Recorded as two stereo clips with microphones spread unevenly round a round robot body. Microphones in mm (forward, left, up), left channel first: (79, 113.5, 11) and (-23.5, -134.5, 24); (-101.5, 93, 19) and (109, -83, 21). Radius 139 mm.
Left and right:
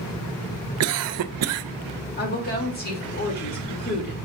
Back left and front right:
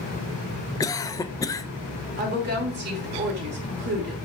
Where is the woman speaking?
15° left, 2.5 m.